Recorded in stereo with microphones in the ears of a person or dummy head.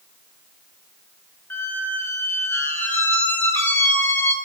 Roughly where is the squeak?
Centre.